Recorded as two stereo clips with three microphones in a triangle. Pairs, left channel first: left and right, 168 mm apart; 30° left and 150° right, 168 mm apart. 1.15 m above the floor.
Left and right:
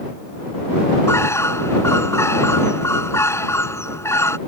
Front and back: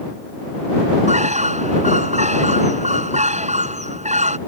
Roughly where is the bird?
Behind.